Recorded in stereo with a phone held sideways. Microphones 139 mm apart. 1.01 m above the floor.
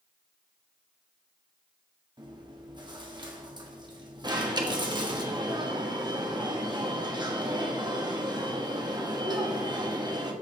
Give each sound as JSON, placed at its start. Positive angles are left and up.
{"t": 2.2, "sound": "chewing", "side_deg": -30, "distance_m": 1.4}
{"t": 4.2, "sound": "an alarm", "side_deg": -30, "distance_m": 1.2}